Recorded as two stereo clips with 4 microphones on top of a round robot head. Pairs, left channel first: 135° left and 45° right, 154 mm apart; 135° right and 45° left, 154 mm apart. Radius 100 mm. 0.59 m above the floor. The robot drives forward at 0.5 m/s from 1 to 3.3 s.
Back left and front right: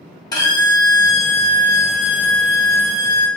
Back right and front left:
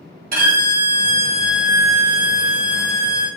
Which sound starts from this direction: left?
A violin, at 0.3 s.